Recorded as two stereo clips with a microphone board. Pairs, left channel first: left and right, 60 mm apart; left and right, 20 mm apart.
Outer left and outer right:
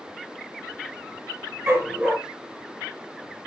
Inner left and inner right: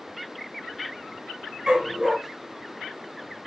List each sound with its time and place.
1.7 s a dog barking: 20° right (ahead or behind), 4 m